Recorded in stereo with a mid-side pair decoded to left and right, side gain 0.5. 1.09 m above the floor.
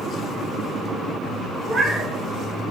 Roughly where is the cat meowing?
Ahead right.